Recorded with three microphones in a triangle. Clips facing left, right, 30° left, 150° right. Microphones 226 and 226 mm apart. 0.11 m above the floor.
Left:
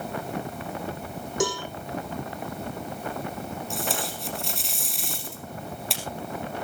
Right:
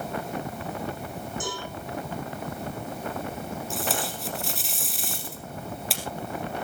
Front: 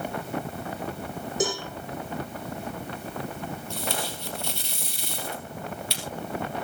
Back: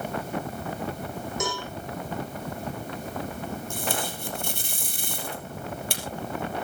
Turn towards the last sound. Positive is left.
turn(degrees=180)